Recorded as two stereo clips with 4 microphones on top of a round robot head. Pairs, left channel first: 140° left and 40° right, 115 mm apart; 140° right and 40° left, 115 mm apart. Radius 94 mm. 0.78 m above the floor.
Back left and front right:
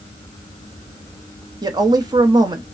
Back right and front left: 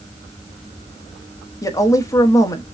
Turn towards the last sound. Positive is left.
turn(degrees=-85)